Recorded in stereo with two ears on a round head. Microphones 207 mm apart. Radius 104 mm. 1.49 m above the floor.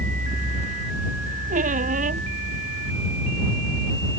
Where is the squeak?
35° right (ahead or behind).